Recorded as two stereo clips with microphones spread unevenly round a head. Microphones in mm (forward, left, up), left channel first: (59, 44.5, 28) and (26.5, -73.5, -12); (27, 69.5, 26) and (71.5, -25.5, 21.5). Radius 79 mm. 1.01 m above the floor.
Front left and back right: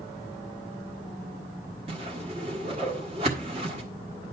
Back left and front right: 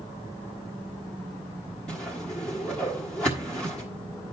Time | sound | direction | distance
1.9 | a whoosh | 160° right | 1.4 m